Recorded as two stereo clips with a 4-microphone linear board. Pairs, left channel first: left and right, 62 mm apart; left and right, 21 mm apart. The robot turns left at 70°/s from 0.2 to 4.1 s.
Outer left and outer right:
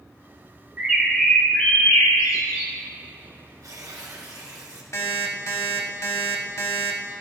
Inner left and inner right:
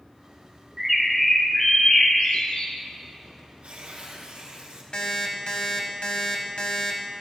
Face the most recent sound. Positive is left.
turn(degrees=50)  # may be behind; listen again after turning